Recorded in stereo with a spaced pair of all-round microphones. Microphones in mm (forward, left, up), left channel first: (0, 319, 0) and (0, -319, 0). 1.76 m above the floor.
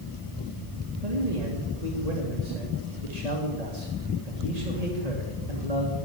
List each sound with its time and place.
1.0 s a man speaking: 80° right, 2.5 m